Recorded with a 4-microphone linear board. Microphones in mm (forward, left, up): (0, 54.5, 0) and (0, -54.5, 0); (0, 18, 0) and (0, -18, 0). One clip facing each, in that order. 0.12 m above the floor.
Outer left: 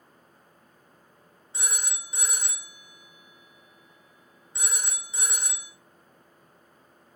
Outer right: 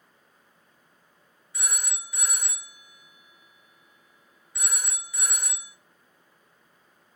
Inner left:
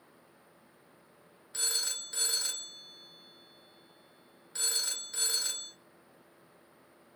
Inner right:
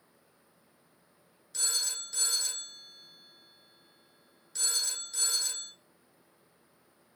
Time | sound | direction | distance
1.5 | a phone ringing | 25° left (ahead or behind) | 0.8 m